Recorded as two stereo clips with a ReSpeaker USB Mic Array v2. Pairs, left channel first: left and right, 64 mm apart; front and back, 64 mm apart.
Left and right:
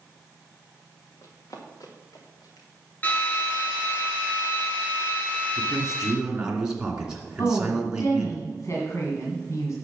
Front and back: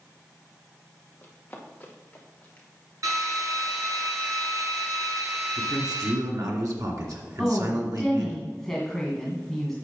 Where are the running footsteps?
65° left, 3 m; by 2.7 s 70° left, 4.5 m.